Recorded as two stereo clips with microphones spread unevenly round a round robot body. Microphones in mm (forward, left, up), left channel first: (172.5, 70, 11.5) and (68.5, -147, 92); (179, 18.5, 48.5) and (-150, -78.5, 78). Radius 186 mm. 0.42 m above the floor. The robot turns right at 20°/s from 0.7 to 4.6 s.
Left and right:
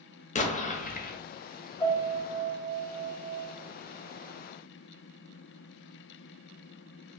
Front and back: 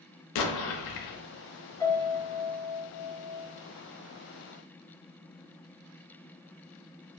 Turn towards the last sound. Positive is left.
turn(degrees=145)